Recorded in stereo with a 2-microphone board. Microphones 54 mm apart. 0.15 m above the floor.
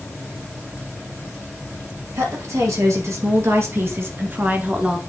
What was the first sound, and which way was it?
A woman speaking, 65° right (ahead or behind).